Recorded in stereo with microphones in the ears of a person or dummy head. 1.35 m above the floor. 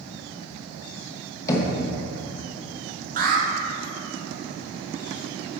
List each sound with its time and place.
1.5 s knocking: 20° left (ahead or behind), 1.0 m
3.2 s an alarm: 40° right (ahead or behind), 1.1 m